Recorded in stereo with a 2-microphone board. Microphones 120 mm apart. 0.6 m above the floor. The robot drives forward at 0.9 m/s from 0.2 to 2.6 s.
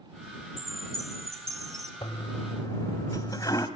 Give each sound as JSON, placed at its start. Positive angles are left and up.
{"t": 0.6, "sound": "a chime", "side_deg": 5, "distance_m": 3.5}
{"t": 2.0, "sound": "a toilet flushing", "side_deg": 40, "distance_m": 1.2}